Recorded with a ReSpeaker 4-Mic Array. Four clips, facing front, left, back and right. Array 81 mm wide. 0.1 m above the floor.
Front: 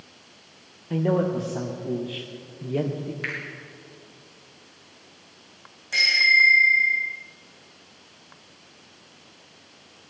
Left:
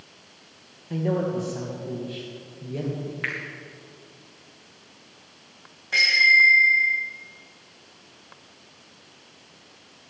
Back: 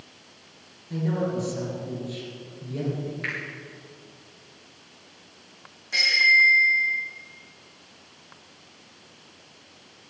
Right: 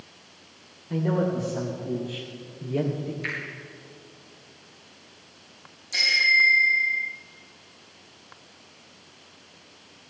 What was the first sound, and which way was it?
A man speaking, 10° left.